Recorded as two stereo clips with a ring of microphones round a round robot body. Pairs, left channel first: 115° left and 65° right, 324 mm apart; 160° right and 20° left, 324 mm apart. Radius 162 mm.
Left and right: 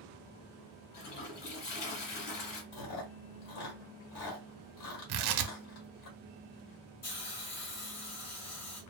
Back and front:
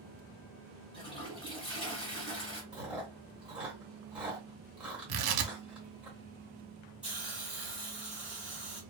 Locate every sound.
0.9 s a toilet flushing: 125° left, 1.5 m
2.7 s chewing: 110° left, 1.3 m
5.1 s tearing paper: 30° right, 0.5 m
7.0 s a hiss: 105° left, 1.6 m